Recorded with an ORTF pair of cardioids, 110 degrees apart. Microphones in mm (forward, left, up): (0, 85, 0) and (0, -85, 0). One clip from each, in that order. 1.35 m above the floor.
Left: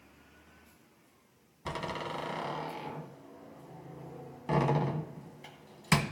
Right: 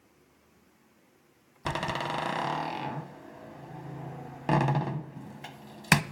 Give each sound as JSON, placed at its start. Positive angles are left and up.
{"t": 1.6, "sound": "a door slam", "azimuth_deg": -45, "distance_m": 0.8}